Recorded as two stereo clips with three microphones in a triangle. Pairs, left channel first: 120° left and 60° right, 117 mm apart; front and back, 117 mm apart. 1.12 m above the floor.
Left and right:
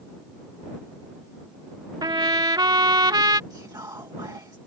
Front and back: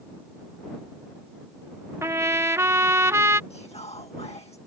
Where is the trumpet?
115° right.